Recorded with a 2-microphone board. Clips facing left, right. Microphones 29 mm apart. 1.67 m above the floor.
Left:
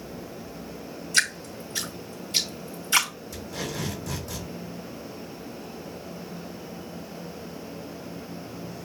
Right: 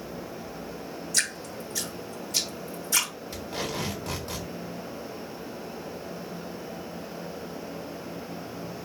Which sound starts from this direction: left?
Dripping, at 1.1 s.